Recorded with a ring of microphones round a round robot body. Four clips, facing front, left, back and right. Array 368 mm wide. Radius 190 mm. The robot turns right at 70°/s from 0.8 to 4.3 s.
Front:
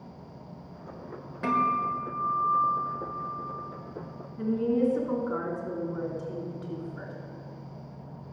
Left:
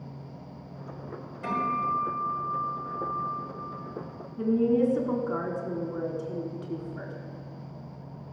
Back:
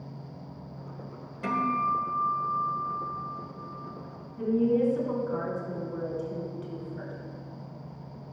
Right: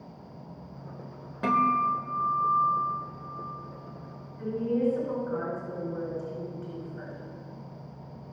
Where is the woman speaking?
80° left, 3 m.